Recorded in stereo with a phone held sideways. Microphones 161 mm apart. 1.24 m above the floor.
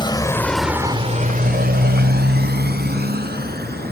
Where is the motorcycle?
30° left (ahead or behind); by 3.9 s 75° right (ahead or behind).